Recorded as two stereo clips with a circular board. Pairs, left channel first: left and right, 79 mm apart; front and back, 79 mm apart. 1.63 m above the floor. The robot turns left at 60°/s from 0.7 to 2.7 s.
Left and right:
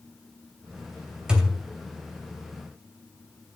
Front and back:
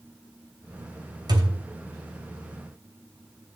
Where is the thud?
170° right, 2.5 m; by 1.7 s 170° left, 2.5 m.